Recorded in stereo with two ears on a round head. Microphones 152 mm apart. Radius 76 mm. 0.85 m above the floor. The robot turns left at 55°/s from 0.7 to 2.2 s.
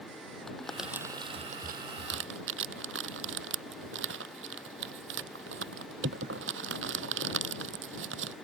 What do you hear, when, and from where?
0.5 s crumpling: 5° left (ahead or behind); by 8.3 s 80° right